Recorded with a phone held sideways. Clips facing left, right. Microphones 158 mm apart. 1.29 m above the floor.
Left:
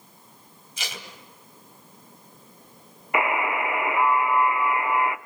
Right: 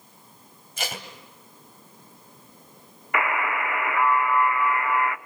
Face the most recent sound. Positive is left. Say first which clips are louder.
# left 2 dB
turn(degrees=20)  # may be behind; listen again after turning